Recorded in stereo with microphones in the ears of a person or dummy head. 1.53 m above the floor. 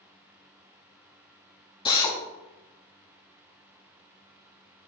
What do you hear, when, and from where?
1.9 s a drill: 20° left (ahead or behind), 0.8 m